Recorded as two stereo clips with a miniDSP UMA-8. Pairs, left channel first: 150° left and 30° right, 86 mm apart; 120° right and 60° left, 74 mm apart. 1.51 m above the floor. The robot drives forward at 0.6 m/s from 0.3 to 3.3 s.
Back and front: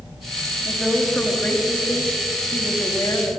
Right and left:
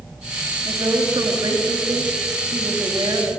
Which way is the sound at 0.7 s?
70° left.